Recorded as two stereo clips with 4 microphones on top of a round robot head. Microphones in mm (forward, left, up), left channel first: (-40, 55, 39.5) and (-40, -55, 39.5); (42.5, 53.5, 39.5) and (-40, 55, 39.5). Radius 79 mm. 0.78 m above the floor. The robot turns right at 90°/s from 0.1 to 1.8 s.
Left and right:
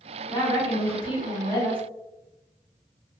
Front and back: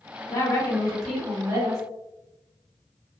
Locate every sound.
0.3 s a woman speaking: 30° left, 1.7 m; by 1.8 s 165° left, 1.7 m